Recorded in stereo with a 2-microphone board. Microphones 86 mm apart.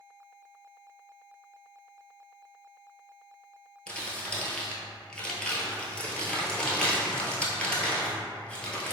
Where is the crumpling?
10° left (ahead or behind), 0.7 m.